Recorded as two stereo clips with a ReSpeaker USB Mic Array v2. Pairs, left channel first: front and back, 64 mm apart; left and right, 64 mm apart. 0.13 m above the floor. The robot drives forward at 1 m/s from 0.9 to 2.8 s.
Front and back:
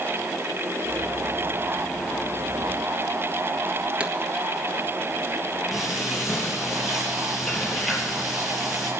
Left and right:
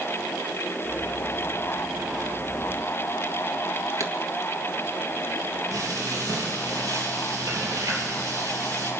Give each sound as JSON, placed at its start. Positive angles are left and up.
{"t": 4.0, "sound": "a pop", "azimuth_deg": -110, "distance_m": 1.4}
{"t": 5.7, "sound": "frying", "azimuth_deg": -95, "distance_m": 3.0}